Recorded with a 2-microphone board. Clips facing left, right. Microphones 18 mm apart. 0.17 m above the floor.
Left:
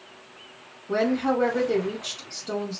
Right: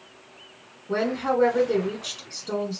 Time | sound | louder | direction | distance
0.9 | a woman speaking | left 1 dB | centre (ahead or behind) | 1.4 m